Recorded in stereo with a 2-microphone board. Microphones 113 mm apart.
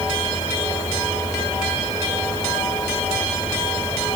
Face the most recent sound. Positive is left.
No sound to turn to.